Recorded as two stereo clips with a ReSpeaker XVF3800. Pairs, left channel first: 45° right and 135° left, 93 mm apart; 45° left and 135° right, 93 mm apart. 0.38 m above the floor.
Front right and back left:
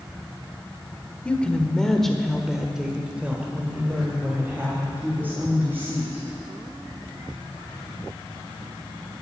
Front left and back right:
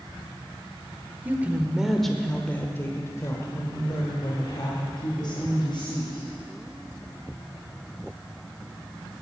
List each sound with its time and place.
1.2 s a woman speaking: 105° right, 1.3 m; by 6.2 s 70° left, 3 m